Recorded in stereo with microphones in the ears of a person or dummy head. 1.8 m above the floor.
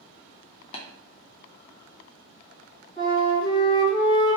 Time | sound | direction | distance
0.7 | tapping | 40° left (ahead or behind) | 0.6 m
3.0 | a flute | 30° left (ahead or behind) | 1.7 m